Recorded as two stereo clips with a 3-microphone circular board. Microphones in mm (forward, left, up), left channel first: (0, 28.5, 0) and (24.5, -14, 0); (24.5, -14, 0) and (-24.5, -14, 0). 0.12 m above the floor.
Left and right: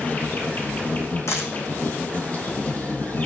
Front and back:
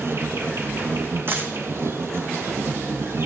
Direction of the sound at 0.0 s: 170° left.